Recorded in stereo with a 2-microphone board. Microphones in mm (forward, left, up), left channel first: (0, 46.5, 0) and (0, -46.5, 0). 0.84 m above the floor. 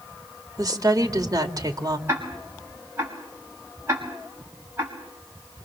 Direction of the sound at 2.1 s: 30° right (ahead or behind).